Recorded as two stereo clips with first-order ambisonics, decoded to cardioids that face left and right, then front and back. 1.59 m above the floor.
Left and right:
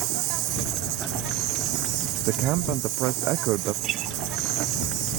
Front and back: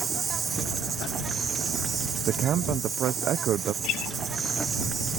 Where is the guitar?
40° right.